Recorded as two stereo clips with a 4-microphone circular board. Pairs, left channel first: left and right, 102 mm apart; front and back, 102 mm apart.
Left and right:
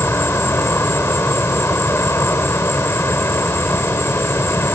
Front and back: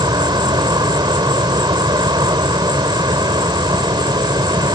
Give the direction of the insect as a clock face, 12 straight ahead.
7 o'clock.